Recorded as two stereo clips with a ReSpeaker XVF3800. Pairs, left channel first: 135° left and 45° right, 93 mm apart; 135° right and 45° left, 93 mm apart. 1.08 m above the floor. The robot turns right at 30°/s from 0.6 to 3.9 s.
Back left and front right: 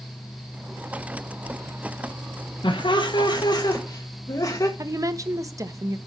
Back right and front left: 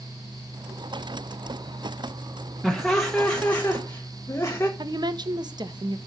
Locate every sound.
2.6 s laughter: 130° left, 1.2 m; by 4.7 s 165° left, 1.2 m
4.8 s a woman speaking: 5° left, 1.0 m